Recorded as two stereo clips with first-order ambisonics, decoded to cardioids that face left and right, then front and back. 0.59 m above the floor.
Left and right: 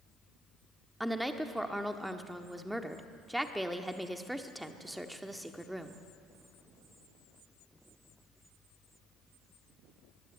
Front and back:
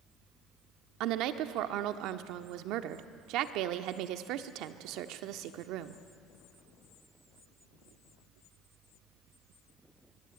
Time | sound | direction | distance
1.0 | a woman speaking | 175° right | 1.1 m